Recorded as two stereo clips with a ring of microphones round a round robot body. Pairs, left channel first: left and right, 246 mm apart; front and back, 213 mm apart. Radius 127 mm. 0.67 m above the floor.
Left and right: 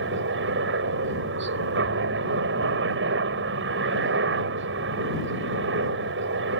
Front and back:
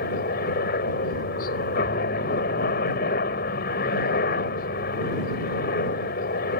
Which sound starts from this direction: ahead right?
A helicopter, at 0.0 s.